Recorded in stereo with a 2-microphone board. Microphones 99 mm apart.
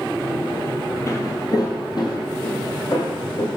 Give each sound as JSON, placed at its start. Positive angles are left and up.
{"t": 1.1, "sound": "footsteps", "side_deg": 35, "distance_m": 0.9}